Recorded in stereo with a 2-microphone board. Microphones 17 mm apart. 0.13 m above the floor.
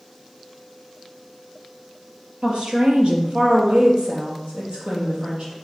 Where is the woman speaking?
60° right (ahead or behind), 3 m; by 5.5 s 70° right (ahead or behind), 4.5 m.